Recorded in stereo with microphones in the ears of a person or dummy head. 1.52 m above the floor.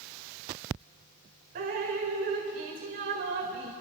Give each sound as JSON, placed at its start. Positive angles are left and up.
{"t": 1.6, "sound": "dripping", "side_deg": -45, "distance_m": 2.0}